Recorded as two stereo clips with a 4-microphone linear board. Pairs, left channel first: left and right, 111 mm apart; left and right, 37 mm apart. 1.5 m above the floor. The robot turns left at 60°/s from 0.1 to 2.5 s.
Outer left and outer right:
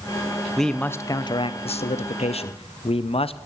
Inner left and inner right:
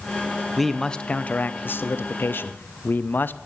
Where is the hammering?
I don't hear hammering.